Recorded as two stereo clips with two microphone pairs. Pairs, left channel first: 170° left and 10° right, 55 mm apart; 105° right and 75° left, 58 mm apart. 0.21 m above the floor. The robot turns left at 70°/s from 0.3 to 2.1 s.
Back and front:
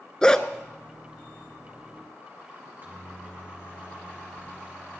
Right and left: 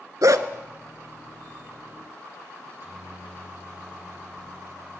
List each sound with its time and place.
0.2 s a dog barking: 90° left, 0.6 m; by 0.5 s 80° left, 0.6 m
2.6 s a microwave: 35° left, 4 m